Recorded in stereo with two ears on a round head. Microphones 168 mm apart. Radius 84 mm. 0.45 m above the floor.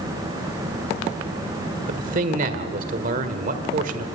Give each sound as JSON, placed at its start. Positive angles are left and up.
{"t": 1.9, "sound": "a man speaking", "side_deg": -45, "distance_m": 1.5}